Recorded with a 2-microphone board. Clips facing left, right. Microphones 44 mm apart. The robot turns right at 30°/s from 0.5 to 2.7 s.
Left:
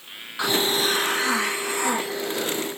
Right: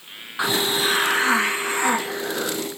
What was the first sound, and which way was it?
A hiss, 150° right.